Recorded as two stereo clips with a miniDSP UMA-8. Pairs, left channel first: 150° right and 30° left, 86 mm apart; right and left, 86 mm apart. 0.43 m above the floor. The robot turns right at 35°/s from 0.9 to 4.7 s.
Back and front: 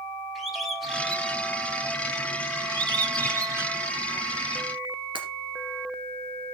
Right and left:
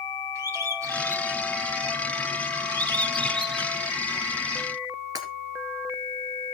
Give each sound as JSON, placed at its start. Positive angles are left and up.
{"t": 0.3, "sound": "a bird", "azimuth_deg": 115, "distance_m": 1.7}
{"t": 2.7, "sound": "a bird", "azimuth_deg": 55, "distance_m": 1.1}
{"t": 5.2, "sound": "breaking glass", "azimuth_deg": 50, "distance_m": 2.5}